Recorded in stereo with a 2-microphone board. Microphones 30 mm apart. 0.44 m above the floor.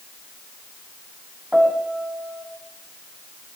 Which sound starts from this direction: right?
A piano, at 1.5 s.